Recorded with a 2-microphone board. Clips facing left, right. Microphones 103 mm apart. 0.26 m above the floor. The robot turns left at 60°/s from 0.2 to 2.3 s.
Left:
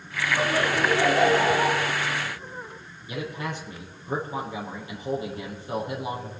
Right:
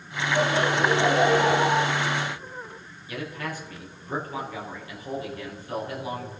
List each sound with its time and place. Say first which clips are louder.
0.3 s laughter: right 2 dB; 85° left, 3 m; by 1.9 s 10° right, 3 m
3.1 s a man speaking: left 1 dB; 25° left (ahead or behind), 5.5 m